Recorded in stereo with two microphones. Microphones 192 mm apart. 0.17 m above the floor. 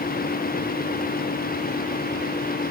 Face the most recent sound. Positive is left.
No sound to turn to.